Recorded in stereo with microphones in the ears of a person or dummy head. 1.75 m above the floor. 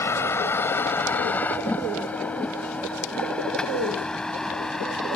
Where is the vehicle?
20° left (ahead or behind); by 5.2 s 5° left (ahead or behind).